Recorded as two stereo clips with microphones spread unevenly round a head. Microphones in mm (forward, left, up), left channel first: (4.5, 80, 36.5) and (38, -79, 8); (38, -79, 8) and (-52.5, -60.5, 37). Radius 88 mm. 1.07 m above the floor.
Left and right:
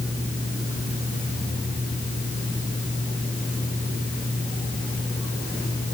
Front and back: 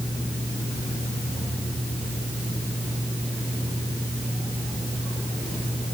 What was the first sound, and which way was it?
Only background noise.